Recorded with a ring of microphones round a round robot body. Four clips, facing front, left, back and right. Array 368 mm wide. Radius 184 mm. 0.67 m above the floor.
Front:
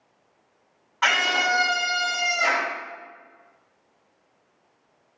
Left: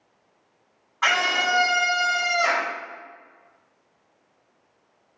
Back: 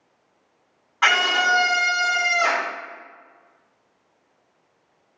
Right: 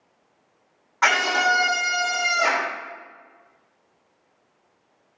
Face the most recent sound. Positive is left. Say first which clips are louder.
# right 3 dB, back 3 dB
turn(degrees=-105)